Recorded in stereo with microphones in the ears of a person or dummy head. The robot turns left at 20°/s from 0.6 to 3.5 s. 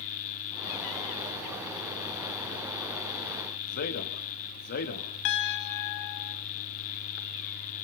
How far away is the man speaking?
About 3 m.